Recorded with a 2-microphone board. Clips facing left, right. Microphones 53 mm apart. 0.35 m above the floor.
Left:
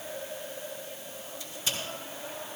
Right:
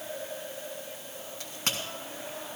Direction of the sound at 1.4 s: 60° right (ahead or behind).